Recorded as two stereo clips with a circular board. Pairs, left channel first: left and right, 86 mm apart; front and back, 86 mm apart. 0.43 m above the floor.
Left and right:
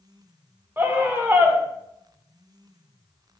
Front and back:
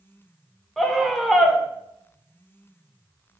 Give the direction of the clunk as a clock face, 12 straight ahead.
I don't hear a clunk.